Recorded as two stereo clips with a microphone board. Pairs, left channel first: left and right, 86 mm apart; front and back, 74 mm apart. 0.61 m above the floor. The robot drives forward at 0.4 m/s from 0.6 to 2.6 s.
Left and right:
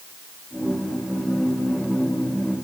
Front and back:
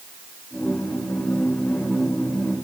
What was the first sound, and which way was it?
Only background noise.